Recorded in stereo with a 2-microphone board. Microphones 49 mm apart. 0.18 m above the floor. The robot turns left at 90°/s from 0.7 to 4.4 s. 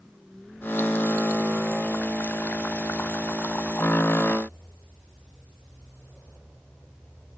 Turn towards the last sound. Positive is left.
No sound to turn to.